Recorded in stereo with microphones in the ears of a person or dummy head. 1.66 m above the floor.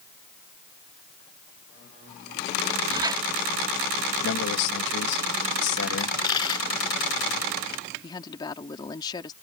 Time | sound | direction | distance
2.9 | a squeak | 25° right (ahead or behind) | ?
4.2 | a man speaking | 65° left (ahead or behind) | ?
6.0 | a dropped coin | 25° left (ahead or behind) | ?
8.0 | a woman speaking | 25° left (ahead or behind) | ?